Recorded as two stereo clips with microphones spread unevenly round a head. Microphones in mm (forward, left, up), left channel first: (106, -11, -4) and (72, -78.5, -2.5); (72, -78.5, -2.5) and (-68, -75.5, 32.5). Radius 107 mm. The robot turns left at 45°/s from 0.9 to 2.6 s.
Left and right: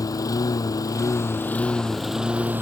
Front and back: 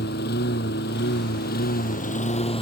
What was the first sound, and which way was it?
A lawn mower, 25° left.